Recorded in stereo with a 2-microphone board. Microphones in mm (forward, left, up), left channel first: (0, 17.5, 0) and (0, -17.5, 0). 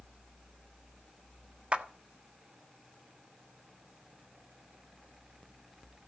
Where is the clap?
35° right (ahead or behind), 1.4 m.